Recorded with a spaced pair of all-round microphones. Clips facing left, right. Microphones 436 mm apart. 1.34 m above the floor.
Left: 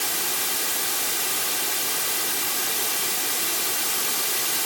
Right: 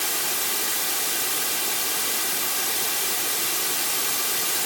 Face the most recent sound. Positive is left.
No sound to turn to.